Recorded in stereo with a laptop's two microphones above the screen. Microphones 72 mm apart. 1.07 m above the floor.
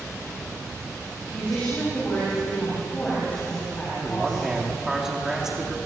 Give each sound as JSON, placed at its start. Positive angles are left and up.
{"t": 1.3, "sound": "a woman speaking", "side_deg": 20, "distance_m": 6.5}
{"t": 4.0, "sound": "a man speaking", "side_deg": -10, "distance_m": 2.5}